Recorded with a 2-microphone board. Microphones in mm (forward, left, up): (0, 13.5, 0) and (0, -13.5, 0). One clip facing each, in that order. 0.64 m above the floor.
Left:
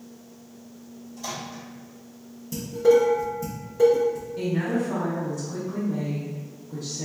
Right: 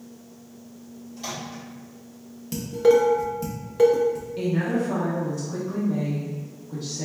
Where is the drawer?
I don't hear a drawer.